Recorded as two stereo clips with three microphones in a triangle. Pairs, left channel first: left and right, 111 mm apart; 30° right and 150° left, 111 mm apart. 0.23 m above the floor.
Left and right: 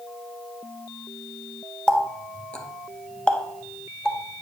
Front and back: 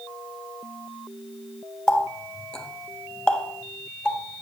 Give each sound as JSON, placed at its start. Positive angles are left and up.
{"t": 1.9, "sound": "a running tap", "azimuth_deg": 30, "distance_m": 0.6}